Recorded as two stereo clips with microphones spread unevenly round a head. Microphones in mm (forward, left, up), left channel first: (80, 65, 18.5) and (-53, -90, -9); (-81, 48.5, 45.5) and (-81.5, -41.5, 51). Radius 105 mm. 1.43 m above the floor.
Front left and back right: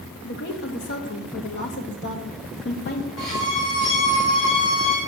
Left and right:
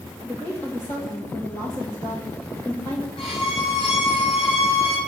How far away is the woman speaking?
About 1.5 m.